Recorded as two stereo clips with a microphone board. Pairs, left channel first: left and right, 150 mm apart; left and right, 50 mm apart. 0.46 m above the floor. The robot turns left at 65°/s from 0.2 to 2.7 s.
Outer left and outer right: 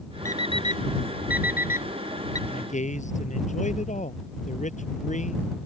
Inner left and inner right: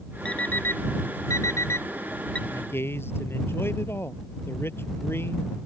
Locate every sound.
0.2 s an alarm clock: 20° left (ahead or behind)
2.5 s a man speaking: 65° left (ahead or behind); by 5.6 s 50° left (ahead or behind)